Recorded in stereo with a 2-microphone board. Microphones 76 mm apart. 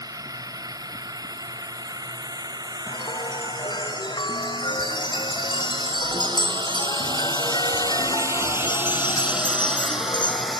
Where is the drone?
55° right (ahead or behind); by 10.6 s centre (ahead or behind).